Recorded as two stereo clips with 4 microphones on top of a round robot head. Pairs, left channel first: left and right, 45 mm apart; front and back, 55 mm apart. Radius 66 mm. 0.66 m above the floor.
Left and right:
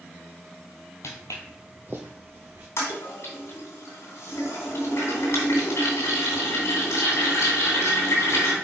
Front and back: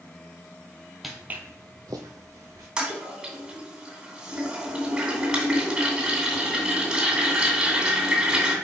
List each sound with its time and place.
1.0 s footsteps: 95° left, 0.9 m; by 2.7 s 135° right, 2 m
2.8 s a toilet flushing: 105° left, 2.5 m